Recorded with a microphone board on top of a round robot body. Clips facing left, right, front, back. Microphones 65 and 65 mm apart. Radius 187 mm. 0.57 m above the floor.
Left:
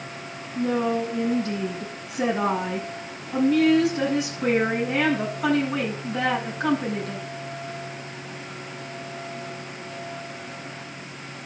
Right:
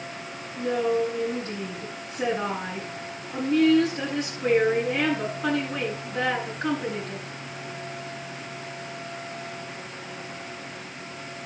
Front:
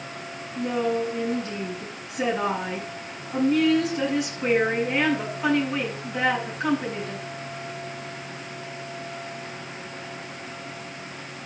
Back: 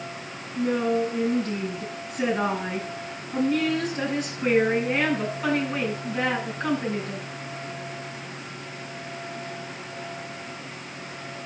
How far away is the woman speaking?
About 8.5 m.